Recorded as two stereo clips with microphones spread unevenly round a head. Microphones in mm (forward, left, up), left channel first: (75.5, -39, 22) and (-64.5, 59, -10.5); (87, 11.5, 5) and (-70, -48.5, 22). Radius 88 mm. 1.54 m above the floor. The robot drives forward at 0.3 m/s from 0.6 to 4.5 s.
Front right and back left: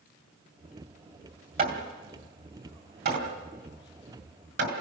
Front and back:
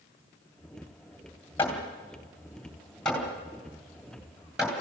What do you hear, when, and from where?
1.6 s hammering: 105° left, 3.5 m; by 4.8 s 115° left, 4 m